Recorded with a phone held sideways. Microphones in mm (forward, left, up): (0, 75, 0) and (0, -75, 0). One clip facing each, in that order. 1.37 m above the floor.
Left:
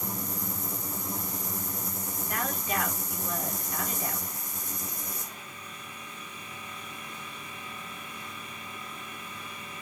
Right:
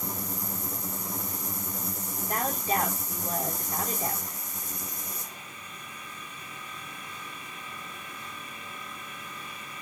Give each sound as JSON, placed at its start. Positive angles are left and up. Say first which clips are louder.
{"t": 2.3, "sound": "a woman speaking", "louder": "right 4 dB", "side_deg": -40, "distance_m": 4.5}